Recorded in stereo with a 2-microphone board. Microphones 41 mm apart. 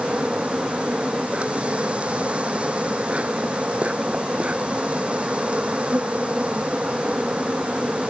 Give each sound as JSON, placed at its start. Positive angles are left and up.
{"t": 0.0, "sound": "an insect", "side_deg": -30}